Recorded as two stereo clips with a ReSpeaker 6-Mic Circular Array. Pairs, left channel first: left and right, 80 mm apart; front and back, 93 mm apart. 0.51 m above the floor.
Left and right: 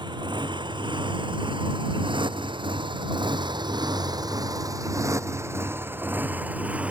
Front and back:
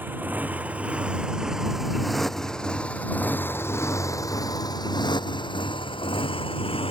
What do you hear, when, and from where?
0.0 s a motorcycle: 110° right; by 6.9 s 15° right